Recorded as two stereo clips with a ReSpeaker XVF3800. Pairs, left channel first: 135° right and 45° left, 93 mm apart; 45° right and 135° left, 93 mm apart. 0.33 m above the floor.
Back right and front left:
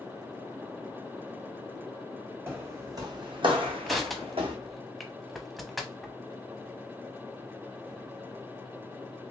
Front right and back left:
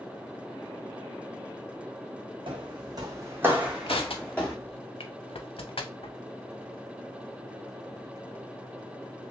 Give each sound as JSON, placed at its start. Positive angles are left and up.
{"t": 2.5, "sound": "footsteps", "azimuth_deg": 110, "distance_m": 1.4}
{"t": 3.9, "sound": "crushing", "azimuth_deg": -45, "distance_m": 0.6}